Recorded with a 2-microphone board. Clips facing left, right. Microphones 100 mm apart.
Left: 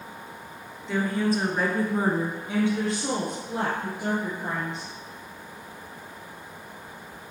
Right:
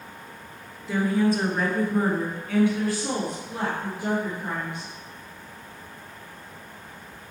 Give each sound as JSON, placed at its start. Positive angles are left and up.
{"t": 0.9, "sound": "a woman speaking", "side_deg": -5, "distance_m": 1.8}